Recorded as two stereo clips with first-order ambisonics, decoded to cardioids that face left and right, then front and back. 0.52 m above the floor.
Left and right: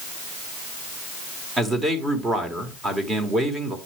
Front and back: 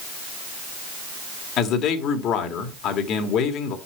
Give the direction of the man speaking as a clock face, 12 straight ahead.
1 o'clock.